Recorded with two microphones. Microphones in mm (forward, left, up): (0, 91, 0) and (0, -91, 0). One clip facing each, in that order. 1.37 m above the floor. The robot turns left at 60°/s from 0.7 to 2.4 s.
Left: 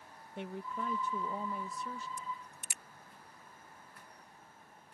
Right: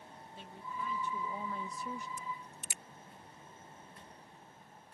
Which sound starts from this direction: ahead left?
A woman speaking, at 0.4 s.